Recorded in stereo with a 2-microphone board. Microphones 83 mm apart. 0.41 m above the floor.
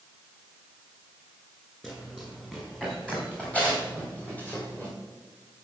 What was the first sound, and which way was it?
Running footsteps, 5° left (ahead or behind).